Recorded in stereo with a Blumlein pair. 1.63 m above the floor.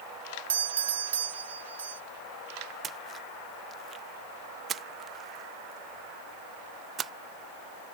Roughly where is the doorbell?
Ahead right.